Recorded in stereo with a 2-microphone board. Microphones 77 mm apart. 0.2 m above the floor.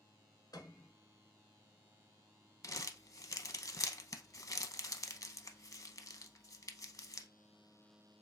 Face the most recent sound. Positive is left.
turn(degrees=50)  # may be behind; listen again after turning